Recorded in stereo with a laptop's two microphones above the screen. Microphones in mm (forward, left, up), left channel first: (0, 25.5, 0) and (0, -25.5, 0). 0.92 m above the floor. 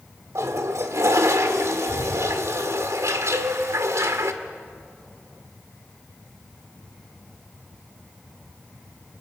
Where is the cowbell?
75° right (ahead or behind), 9 m.